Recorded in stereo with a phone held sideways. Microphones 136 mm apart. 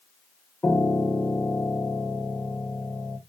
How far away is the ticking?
I don't hear ticking.